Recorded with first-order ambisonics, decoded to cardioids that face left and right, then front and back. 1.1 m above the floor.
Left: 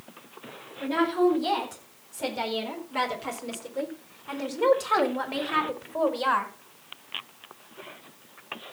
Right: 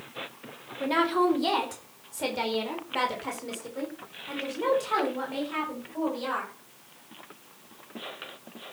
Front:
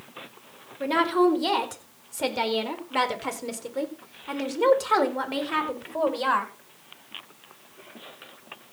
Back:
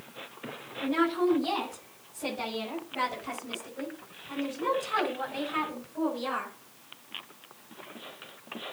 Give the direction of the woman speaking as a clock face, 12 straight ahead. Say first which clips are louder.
Even, front 5 dB; 1 o'clock.